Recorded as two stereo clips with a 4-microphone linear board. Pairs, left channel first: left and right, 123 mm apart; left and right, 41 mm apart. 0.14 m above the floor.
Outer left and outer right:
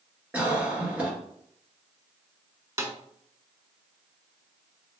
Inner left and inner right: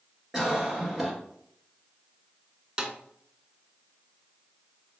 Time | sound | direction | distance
0.3 | a cough | 10° right (ahead or behind) | 2.0 m
2.8 | a snare drum | 25° right (ahead or behind) | 0.6 m